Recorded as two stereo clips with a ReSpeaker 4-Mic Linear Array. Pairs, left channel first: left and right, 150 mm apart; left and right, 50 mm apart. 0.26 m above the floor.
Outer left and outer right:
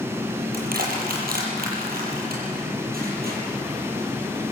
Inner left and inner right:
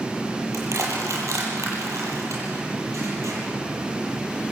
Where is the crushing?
80° right, 8 m.